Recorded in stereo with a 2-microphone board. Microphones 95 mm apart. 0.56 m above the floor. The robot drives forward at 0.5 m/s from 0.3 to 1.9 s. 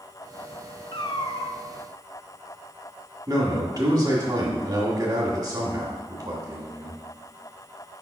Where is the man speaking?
40° right (ahead or behind), 1.5 m.